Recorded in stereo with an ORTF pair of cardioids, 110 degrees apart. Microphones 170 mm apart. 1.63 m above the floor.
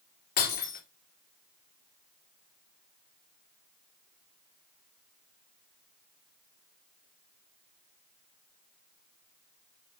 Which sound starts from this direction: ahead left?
Breaking glass, at 0.4 s.